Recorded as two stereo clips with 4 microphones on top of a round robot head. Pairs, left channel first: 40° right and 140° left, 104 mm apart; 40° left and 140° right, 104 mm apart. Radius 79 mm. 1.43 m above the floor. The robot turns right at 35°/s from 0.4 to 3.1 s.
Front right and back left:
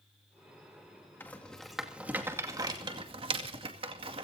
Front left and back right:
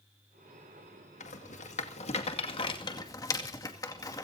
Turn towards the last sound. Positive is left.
turn(degrees=100)